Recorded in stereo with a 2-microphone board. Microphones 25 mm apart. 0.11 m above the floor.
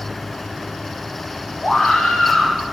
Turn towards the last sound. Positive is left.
turn(degrees=20)  # may be behind; listen again after turning